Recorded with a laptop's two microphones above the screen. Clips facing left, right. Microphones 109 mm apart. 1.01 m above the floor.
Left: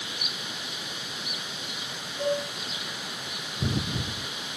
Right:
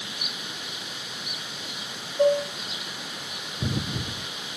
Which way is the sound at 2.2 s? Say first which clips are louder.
Right 7 dB; 85° right.